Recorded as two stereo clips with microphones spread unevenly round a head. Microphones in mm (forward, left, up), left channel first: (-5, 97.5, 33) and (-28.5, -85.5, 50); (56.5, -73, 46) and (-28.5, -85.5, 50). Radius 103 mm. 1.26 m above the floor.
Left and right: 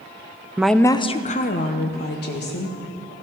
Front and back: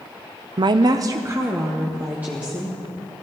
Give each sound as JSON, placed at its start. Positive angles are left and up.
{"t": 0.6, "sound": "a woman speaking", "azimuth_deg": 180, "distance_m": 0.5}